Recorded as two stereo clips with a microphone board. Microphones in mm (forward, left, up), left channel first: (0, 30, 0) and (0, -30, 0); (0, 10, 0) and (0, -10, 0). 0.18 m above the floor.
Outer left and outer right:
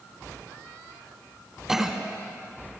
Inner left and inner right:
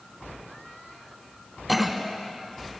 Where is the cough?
10° right (ahead or behind), 1.3 m.